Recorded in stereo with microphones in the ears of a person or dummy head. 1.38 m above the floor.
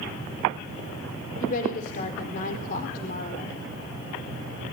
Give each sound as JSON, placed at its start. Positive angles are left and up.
{"t": 1.4, "sound": "a woman speaking", "side_deg": 50, "distance_m": 3.5}